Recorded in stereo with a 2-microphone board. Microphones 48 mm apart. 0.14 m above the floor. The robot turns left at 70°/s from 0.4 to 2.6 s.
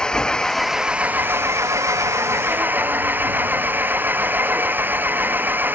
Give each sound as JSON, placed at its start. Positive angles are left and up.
{"t": 0.0, "sound": "an engine running", "azimuth_deg": 15}